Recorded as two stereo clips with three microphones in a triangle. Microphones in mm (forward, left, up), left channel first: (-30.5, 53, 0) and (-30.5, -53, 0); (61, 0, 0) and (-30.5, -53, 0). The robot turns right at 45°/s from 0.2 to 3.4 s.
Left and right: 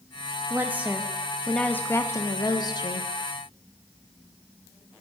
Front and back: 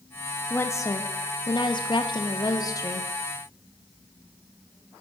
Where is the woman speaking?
35° right, 0.8 m; by 3.1 s 85° left, 0.8 m.